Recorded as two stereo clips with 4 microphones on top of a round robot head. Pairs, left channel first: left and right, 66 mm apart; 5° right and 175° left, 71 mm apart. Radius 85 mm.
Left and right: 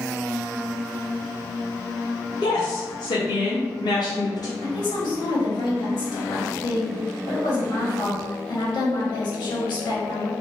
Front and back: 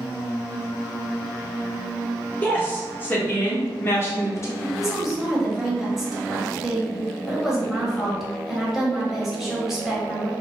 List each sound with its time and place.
2.4 s a woman speaking: 60° left, 1.5 m; by 4.5 s 35° left, 0.6 m
4.6 s a woman speaking: 90° left, 1.5 m